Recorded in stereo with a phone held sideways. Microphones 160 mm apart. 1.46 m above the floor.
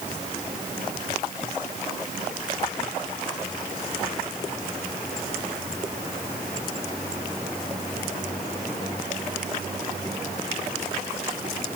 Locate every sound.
Only background noise.